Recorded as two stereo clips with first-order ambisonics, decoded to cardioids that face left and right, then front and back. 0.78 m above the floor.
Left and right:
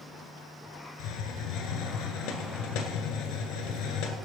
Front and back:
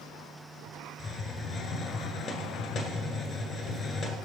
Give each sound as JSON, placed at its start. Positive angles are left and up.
{"t": 1.0, "sound": "a hiss", "azimuth_deg": 55, "distance_m": 1.5}